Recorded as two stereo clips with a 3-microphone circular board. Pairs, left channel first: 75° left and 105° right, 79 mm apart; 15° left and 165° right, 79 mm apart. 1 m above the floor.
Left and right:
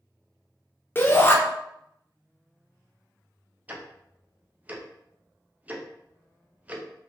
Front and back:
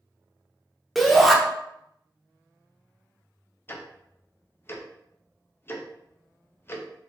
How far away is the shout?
About 0.7 m.